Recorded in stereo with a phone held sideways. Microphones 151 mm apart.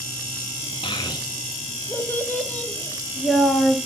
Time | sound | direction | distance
0.8 | a child speaking | 35° left (ahead or behind) | 1.3 m